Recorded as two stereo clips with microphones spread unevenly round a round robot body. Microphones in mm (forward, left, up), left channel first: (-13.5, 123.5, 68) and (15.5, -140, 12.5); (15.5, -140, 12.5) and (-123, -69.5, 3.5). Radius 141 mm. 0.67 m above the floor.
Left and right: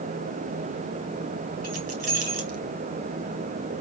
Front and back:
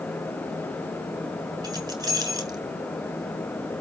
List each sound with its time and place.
1.6 s keys jangling: 140° right, 4 m